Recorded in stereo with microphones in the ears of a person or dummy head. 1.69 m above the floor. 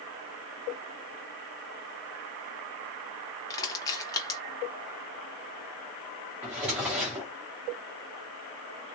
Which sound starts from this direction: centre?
A drawer, at 6.4 s.